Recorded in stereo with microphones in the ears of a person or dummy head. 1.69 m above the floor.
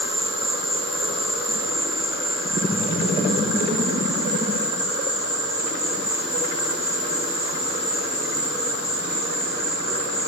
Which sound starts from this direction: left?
An insect, at 0.0 s.